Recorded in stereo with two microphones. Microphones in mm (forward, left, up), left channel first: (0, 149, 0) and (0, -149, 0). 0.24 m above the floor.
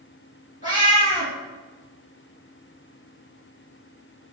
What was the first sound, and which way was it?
A cat meowing, 25° left (ahead or behind).